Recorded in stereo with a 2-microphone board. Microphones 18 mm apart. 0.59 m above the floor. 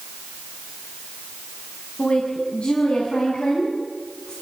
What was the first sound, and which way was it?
A woman speaking, 75° left (ahead or behind).